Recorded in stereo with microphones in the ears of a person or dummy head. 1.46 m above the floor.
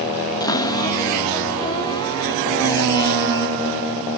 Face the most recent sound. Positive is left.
turn(degrees=20)  # may be behind; listen again after turning